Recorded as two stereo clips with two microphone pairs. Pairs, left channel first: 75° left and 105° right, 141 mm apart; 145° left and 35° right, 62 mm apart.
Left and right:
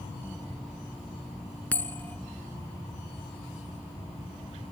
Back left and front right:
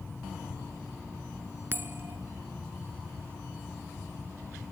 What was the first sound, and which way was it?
A bell, 5° left.